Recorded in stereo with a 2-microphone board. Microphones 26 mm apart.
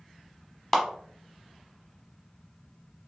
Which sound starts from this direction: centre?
A clap, at 0.7 s.